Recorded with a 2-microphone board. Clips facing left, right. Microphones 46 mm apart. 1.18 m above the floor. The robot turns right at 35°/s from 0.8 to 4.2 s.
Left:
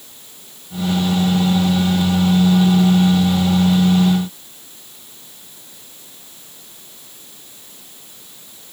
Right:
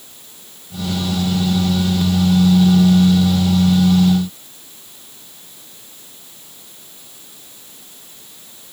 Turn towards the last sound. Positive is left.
No sound to turn to.